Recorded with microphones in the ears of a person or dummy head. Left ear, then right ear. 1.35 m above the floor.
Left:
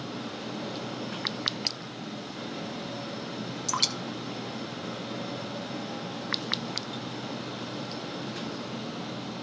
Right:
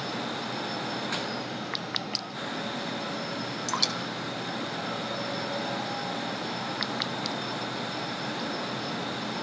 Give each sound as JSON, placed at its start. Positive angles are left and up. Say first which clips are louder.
{"t": 3.7, "sound": "dripping", "louder": "left 1 dB", "side_deg": 0, "distance_m": 0.6}